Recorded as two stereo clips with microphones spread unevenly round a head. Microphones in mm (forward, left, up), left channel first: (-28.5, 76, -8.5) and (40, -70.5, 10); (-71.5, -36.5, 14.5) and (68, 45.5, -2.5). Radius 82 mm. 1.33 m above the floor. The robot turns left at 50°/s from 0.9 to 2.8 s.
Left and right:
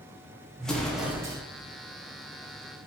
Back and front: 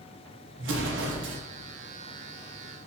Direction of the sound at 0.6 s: 30° left.